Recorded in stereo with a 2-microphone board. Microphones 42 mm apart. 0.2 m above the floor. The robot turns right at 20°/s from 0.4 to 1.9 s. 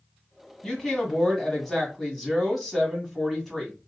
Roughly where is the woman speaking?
Centre.